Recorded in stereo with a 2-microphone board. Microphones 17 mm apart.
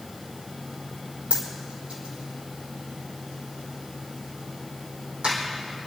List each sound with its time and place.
1.3 s a dropped coin: 80° right, 4.5 m